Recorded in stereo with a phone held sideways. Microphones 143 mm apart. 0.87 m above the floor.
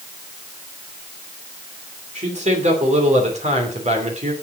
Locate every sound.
2.1 s a man speaking: 50° right (ahead or behind), 3 m